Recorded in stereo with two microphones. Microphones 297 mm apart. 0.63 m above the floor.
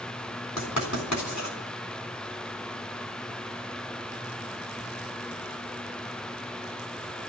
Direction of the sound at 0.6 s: 75° left (ahead or behind).